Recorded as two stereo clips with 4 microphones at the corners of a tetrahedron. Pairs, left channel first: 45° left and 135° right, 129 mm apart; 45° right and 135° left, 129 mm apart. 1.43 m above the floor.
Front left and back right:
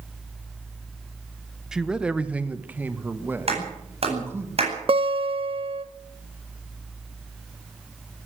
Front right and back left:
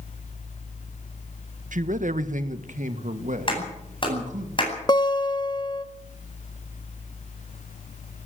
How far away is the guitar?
About 1.2 m.